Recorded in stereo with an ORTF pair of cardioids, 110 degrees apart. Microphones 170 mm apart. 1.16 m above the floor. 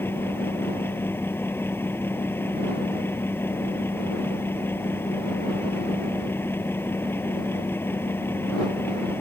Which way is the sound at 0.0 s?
15° left.